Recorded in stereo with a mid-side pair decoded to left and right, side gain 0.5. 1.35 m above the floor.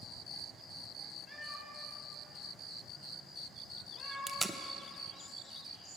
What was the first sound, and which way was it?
A cat meowing, 25° left.